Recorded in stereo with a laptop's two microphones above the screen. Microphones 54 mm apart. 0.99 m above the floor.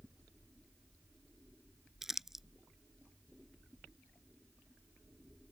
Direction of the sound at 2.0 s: 10° right (ahead or behind).